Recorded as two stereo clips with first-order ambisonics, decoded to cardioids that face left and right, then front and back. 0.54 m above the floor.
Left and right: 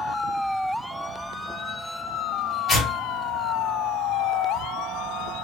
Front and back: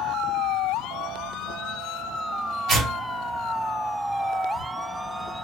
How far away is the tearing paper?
About 1.2 m.